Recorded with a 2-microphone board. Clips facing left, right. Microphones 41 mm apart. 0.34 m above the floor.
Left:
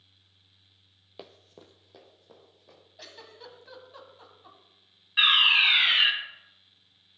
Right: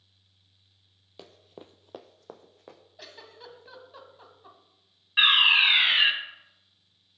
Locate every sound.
1.2 s running footsteps: 15° left (ahead or behind), 0.7 m; by 2.8 s 80° right, 1.8 m
3.0 s a giggle: 5° right (ahead or behind), 1.3 m
5.2 s a fire alarm: 15° right (ahead or behind), 1.9 m